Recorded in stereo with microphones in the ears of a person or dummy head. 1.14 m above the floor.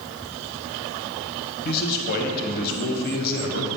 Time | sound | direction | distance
1.6 | a man speaking | 50° left (ahead or behind) | 1.1 m